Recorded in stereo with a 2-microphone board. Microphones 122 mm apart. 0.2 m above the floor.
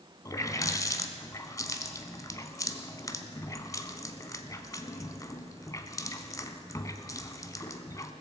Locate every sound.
0.2 s a running tap: 30° left (ahead or behind), 0.9 m